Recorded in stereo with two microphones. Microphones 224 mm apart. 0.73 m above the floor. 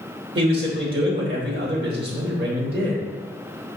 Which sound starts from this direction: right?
A man speaking, at 0.3 s.